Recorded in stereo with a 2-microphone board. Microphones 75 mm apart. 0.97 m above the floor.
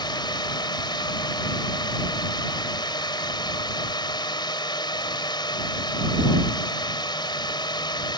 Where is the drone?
80° left.